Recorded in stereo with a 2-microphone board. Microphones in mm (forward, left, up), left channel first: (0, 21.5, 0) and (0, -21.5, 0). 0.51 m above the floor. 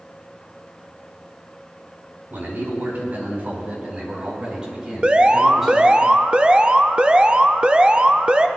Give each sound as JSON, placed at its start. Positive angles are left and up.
{"t": 2.3, "sound": "a man speaking", "side_deg": -55, "distance_m": 4.0}
{"t": 5.0, "sound": "an alarm", "side_deg": -25, "distance_m": 0.6}